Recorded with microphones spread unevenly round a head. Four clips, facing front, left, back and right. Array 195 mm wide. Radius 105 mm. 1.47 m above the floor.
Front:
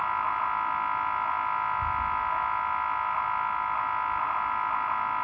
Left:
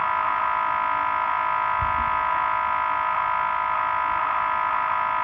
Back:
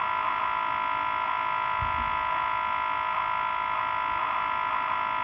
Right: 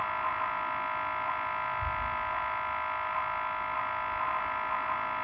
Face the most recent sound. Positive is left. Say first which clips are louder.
# left 9 dB, even
turn(degrees=120)